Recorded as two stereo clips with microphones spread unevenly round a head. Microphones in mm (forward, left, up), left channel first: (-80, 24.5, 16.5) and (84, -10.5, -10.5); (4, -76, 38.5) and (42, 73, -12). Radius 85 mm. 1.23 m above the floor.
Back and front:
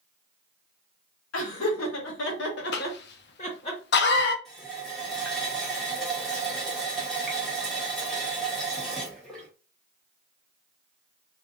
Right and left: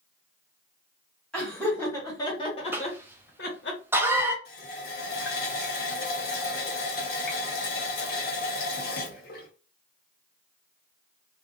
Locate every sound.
1.3 s laughter: 170° left, 1.5 m; by 3.7 s 130° right, 1.1 m
2.7 s a cough: 145° left, 0.6 m
4.5 s a running tap: 105° right, 1.0 m